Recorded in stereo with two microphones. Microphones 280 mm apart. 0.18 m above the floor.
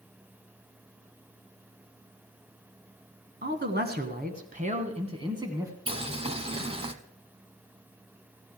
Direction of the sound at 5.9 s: 20° right (ahead or behind).